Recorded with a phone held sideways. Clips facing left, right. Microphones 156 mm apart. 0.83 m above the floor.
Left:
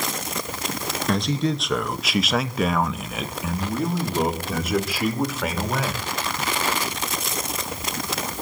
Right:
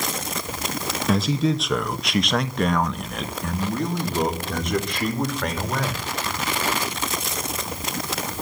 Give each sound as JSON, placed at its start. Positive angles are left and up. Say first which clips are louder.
{"t": 1.1, "sound": "a man speaking", "louder": "right 2 dB", "side_deg": -5, "distance_m": 1.0}